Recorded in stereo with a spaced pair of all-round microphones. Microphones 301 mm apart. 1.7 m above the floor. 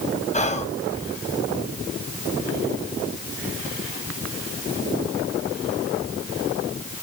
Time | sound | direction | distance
0.3 | whispering | 25° left (ahead or behind) | 0.9 m